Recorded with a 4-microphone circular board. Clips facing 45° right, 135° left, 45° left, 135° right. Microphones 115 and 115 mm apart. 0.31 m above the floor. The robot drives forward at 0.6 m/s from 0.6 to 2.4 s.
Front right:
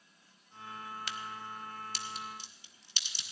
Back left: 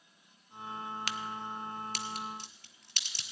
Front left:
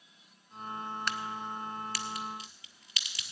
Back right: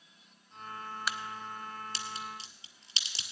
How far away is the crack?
About 0.5 m.